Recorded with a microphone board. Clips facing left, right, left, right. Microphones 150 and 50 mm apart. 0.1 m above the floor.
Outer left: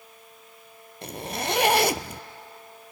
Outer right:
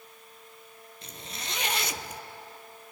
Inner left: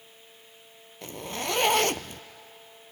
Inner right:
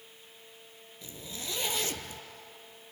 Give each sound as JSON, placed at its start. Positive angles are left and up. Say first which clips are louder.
{"t": 1.0, "sound": "a zipper", "louder": "outer left 13 dB, inner left 10 dB", "side_deg": 70, "distance_m": 0.5}